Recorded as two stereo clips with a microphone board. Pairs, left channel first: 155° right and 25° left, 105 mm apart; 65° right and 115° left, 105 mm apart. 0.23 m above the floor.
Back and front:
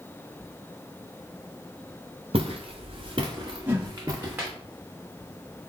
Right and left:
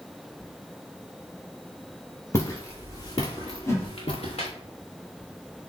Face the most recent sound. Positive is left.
turn(degrees=-35)